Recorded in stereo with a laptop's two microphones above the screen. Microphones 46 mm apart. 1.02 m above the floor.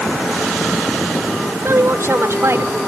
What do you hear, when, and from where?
1.6 s a woman speaking: 85° right; by 2.8 s 80° right